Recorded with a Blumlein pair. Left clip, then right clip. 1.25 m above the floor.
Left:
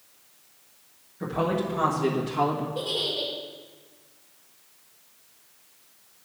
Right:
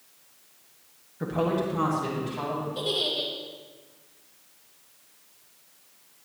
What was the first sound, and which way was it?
A woman speaking, 10° right.